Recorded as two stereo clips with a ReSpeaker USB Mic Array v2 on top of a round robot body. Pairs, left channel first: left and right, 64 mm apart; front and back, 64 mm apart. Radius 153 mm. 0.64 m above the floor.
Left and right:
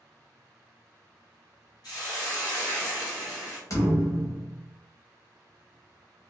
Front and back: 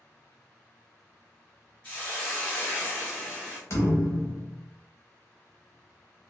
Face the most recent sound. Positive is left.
turn(degrees=50)